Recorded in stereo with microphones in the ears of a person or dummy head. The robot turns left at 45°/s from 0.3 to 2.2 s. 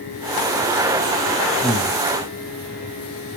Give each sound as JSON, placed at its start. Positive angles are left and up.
{"t": 1.6, "sound": "breathing", "side_deg": 5, "distance_m": 0.6}